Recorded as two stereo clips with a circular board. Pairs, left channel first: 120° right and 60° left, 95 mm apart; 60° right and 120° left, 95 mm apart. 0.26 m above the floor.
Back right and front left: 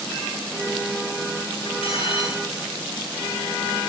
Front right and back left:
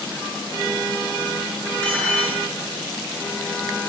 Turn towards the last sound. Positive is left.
turn(degrees=-140)